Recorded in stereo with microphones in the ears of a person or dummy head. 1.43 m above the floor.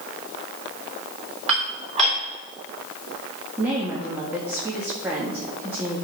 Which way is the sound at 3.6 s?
5° right (ahead or behind).